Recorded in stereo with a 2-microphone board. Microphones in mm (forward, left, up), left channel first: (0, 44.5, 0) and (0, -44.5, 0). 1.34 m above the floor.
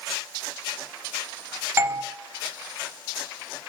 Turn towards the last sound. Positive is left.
turn(degrees=-30)  # may be behind; listen again after turning